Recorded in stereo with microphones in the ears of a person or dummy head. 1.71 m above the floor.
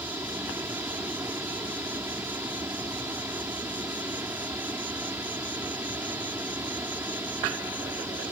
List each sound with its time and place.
0.0 s an insect: 10° right (ahead or behind)